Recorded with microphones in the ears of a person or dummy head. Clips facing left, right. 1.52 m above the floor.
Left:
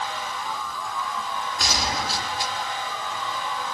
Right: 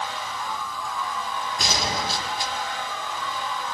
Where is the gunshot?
25° right (ahead or behind), 2 m.